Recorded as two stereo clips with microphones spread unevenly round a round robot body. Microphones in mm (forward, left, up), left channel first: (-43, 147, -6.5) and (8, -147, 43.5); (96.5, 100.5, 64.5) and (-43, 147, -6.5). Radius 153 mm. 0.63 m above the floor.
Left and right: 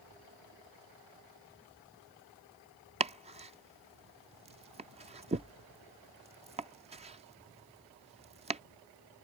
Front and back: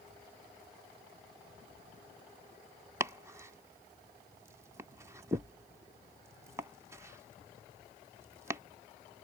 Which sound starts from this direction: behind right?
Chopping, at 3.0 s.